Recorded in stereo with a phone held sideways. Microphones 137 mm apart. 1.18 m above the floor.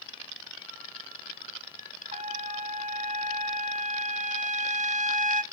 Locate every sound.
2.1 s a trumpet: 55° right (ahead or behind), 0.6 m